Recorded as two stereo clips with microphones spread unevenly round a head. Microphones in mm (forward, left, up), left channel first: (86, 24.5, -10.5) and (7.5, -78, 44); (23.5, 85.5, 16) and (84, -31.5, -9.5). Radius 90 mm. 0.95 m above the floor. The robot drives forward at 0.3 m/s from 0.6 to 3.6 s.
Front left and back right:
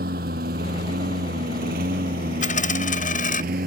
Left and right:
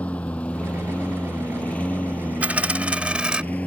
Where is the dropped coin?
20° left; by 3.4 s 25° left.